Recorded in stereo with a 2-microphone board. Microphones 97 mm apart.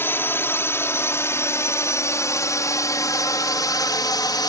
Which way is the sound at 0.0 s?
20° left (ahead or behind).